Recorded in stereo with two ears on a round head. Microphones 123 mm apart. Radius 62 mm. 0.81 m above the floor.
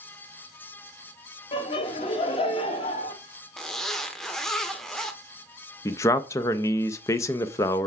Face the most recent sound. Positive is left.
turn(degrees=20)  # may be behind; listen again after turning